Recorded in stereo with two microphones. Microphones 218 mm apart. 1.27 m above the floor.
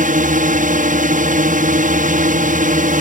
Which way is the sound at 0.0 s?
40° right (ahead or behind).